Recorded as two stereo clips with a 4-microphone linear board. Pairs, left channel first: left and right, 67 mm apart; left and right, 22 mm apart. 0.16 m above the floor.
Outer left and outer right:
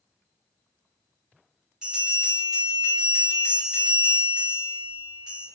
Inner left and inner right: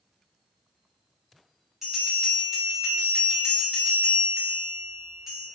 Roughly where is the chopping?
No chopping in this recording.